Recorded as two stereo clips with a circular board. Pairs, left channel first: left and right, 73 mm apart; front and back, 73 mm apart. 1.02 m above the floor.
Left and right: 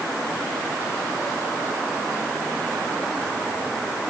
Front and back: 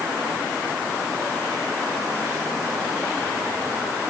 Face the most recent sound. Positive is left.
No sound to turn to.